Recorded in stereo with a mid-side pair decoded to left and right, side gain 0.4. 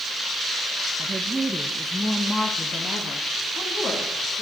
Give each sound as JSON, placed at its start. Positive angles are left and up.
{"t": 1.0, "sound": "a woman speaking", "azimuth_deg": -35, "distance_m": 1.8}